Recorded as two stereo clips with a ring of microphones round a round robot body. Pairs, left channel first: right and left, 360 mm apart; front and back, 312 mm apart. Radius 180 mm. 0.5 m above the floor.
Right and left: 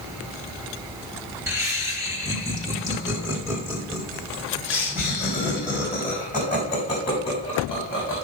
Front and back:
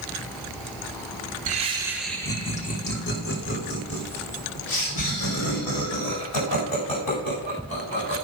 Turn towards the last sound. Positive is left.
turn(degrees=5)